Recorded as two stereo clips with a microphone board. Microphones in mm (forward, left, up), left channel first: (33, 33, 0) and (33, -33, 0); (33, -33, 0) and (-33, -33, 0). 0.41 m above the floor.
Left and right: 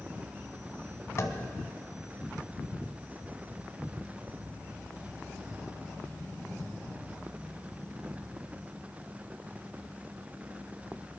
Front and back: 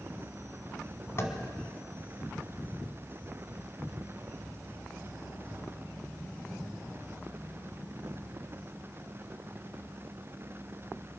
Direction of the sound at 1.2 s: 45° left.